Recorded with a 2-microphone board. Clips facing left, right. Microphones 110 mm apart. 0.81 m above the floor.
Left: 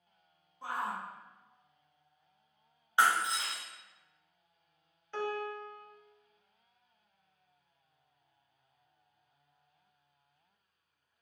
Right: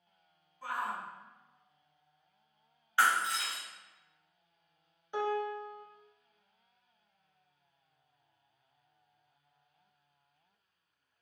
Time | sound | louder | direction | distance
0.6 | a shout | even | 25° left (ahead or behind) | 0.9 m
3.0 | breaking glass | left 1 dB | 20° left (ahead or behind) | 0.6 m
5.1 | a piano | right 3 dB | 15° right (ahead or behind) | 0.5 m